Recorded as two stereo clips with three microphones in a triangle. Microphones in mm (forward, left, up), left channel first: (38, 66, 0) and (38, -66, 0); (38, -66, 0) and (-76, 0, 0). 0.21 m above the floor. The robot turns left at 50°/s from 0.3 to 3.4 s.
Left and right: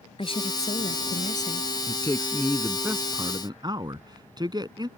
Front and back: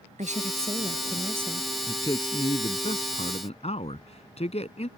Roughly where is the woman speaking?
Behind left.